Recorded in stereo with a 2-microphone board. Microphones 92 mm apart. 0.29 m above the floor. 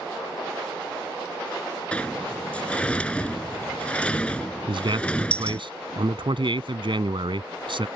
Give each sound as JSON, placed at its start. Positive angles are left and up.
{"t": 1.9, "sound": "a sliding door", "side_deg": 10}
{"t": 4.7, "sound": "a man speaking", "side_deg": -60}